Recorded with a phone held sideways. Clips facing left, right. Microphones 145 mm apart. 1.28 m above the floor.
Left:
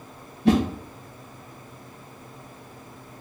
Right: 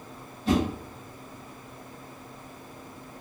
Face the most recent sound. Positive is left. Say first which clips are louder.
# left 5 dB
turn(degrees=70)  # may be behind; listen again after turning